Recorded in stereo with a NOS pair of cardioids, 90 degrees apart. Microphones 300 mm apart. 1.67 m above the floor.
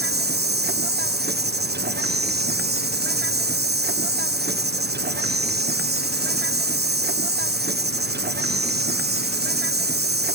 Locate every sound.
0.0 s an insect: 35° right